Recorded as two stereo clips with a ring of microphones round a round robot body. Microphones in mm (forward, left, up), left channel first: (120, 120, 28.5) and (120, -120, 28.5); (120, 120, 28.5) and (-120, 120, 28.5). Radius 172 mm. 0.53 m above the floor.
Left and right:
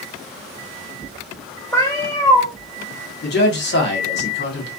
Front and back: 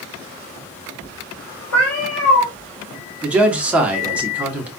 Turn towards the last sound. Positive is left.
turn(degrees=95)